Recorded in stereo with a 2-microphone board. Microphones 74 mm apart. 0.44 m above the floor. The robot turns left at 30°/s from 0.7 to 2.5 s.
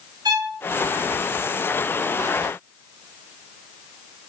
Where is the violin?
70° right (ahead or behind), 5 m.